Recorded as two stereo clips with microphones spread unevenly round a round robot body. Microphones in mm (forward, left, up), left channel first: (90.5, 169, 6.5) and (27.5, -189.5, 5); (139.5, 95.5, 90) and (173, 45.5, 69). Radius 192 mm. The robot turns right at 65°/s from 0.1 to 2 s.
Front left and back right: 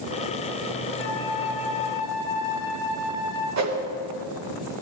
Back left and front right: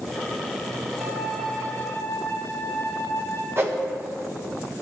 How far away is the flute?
About 1.3 m.